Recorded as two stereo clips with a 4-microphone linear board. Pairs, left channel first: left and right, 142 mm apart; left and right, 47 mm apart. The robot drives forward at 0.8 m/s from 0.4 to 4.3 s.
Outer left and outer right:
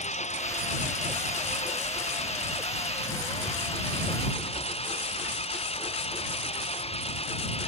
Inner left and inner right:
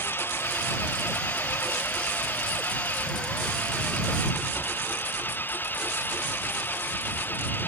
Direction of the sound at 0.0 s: 55° left (ahead or behind).